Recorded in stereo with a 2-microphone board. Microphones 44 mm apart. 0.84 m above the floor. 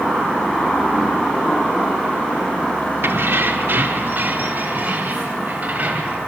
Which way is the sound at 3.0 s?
70° right (ahead or behind).